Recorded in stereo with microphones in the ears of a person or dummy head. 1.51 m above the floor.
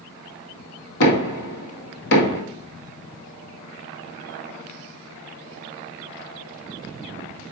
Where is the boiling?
I don't hear boiling.